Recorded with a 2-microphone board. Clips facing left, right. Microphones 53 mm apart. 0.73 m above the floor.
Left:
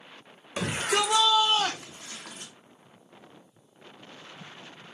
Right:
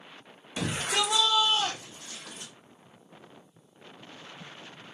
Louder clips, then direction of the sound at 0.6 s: Left 3 dB; 50° left (ahead or behind).